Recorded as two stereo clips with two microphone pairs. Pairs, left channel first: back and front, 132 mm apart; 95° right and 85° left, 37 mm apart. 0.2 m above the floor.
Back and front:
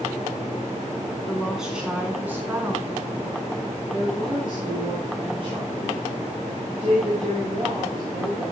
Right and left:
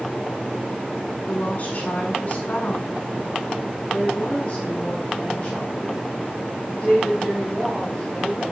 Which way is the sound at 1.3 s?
95° right.